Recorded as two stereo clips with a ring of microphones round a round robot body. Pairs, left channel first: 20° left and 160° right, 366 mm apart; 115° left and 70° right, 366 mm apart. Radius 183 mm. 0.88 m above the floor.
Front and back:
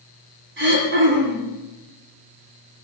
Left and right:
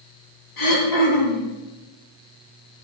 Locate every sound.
0.6 s throat clearing: 140° left, 8.5 m